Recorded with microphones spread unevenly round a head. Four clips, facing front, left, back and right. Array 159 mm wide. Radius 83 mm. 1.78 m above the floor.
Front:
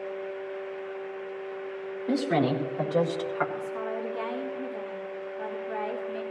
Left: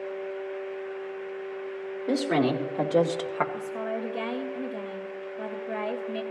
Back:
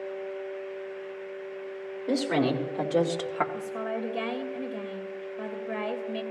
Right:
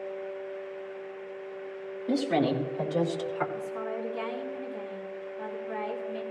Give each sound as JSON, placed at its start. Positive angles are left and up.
{"t": 2.1, "sound": "a woman speaking", "azimuth_deg": 115, "distance_m": 3.5}
{"t": 3.5, "sound": "a woman speaking", "azimuth_deg": 140, "distance_m": 3.0}